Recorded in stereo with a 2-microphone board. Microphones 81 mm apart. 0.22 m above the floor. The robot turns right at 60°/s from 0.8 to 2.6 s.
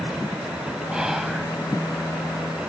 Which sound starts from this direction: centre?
Whispering, at 0.9 s.